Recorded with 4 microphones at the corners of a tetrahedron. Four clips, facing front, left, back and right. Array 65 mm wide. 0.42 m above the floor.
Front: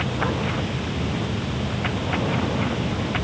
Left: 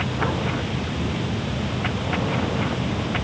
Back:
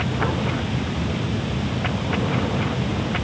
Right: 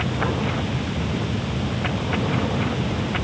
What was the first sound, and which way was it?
Only background noise.